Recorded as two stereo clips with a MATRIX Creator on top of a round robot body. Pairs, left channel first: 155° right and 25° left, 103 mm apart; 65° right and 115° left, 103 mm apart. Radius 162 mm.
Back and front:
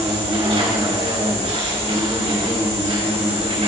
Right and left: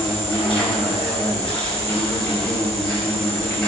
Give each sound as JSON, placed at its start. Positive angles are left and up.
{"t": 0.0, "sound": "an insect", "azimuth_deg": 10, "distance_m": 4.5}